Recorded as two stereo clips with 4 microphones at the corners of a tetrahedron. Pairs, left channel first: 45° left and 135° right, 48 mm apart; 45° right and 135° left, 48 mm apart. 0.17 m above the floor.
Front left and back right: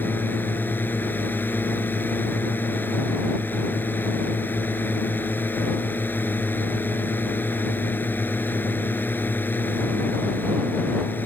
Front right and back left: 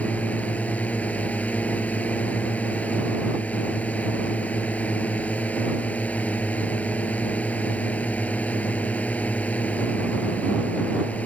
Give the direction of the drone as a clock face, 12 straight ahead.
12 o'clock.